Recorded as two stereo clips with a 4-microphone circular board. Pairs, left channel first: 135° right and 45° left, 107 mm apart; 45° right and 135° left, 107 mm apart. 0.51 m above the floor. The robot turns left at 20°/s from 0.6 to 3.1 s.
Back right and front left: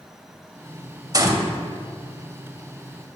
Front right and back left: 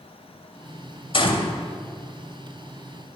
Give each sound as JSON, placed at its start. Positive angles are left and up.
{"t": 1.1, "sound": "a gunshot", "azimuth_deg": -5, "distance_m": 0.8}